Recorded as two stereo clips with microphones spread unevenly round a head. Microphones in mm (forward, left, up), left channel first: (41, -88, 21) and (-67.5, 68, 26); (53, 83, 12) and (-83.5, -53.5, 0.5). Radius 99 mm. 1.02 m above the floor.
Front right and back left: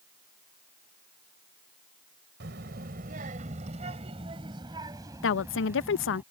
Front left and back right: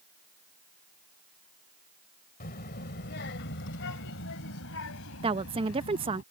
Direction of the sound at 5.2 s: 70° right.